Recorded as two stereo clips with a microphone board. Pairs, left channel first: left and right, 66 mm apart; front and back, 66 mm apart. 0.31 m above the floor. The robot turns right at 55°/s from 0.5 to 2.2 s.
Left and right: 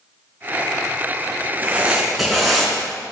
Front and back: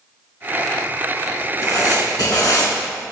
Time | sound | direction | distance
1.6 | writing | 35° right | 3 m